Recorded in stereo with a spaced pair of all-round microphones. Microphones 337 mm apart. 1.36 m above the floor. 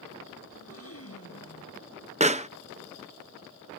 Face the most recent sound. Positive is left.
turn(degrees=-20)  # may be behind; listen again after turning